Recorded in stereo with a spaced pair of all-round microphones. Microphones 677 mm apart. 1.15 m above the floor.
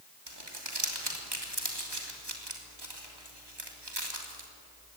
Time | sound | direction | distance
0.3 | crumpling | 35° right (ahead or behind) | 3 m